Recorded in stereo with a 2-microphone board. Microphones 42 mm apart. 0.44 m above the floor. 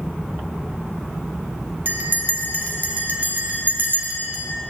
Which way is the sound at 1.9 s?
50° right (ahead or behind).